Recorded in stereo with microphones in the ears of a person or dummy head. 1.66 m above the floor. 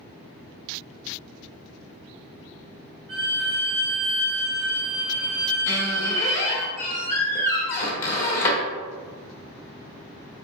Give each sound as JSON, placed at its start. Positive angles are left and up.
{"t": 3.1, "sound": "a violin", "side_deg": -35, "distance_m": 2.0}
{"t": 5.7, "sound": "a squeak", "side_deg": 15, "distance_m": 1.0}